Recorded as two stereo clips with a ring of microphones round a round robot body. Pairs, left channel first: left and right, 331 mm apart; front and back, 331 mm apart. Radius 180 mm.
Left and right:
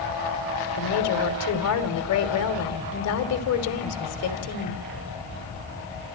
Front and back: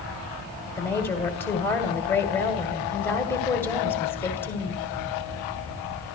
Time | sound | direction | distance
0.8 | a woman speaking | 80° left | 1.6 m